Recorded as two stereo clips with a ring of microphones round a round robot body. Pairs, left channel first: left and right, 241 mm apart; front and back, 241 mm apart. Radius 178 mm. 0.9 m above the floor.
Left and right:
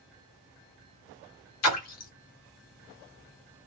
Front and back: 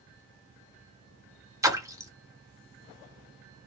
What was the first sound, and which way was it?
A splash, 100° left.